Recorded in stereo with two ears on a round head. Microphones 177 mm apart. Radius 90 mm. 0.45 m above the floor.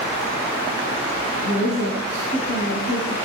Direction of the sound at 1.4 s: 45° left (ahead or behind).